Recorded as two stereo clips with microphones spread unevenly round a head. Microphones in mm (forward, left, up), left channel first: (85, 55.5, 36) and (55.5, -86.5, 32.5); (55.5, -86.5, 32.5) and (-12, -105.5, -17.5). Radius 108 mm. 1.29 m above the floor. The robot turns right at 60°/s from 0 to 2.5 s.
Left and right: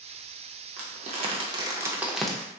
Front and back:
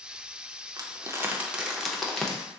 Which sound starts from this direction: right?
Crumpling, at 0.8 s.